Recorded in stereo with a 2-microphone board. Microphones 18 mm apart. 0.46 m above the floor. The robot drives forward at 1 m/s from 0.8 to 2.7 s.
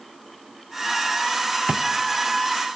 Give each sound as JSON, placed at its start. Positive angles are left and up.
{"t": 1.7, "sound": "a drawer", "side_deg": -50, "distance_m": 1.2}